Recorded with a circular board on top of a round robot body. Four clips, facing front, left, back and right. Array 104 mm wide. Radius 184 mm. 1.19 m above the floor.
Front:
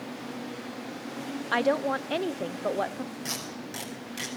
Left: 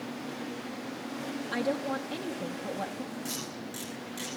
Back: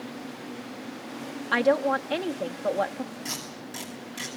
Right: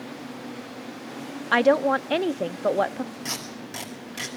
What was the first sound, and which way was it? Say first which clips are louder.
A woman speaking: right 12 dB, back 3 dB; 95° right.